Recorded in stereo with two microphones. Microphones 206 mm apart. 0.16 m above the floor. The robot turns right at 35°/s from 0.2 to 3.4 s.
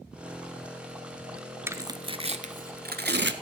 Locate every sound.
1.7 s tearing paper: 10° right (ahead or behind), 0.7 m; by 3.3 s 60° right (ahead or behind), 0.7 m